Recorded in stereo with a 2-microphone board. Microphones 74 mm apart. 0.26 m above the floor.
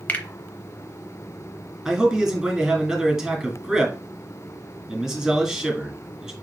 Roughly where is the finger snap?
Left.